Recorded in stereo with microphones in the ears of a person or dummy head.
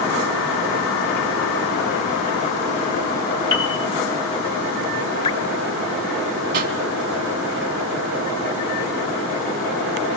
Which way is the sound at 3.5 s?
25° left (ahead or behind).